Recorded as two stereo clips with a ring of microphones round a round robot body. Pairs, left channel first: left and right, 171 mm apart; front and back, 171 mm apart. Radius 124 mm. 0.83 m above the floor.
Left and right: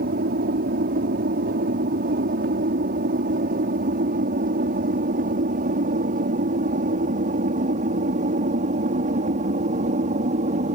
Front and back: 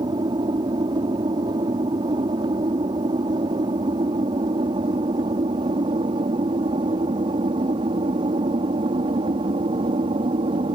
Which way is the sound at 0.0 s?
115° right.